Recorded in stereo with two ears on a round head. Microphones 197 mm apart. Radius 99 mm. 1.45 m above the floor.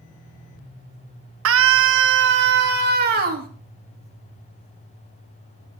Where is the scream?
65° right (ahead or behind), 1.4 m; by 3.5 s 40° right (ahead or behind), 2.5 m.